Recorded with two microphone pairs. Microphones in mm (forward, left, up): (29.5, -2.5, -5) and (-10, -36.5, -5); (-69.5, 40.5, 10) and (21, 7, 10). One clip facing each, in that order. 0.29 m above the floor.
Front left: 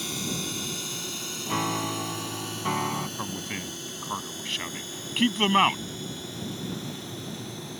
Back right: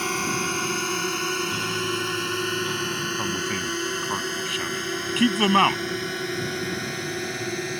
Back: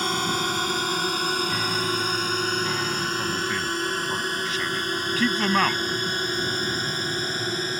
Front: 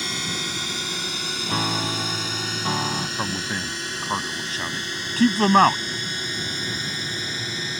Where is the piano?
10° left.